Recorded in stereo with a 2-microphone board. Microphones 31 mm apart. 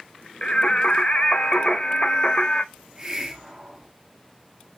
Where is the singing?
40° left (ahead or behind), 0.7 m.